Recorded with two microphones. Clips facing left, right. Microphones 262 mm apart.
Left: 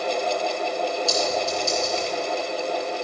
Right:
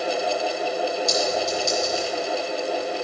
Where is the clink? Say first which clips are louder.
Right 1 dB; 5° left (ahead or behind), 3 m.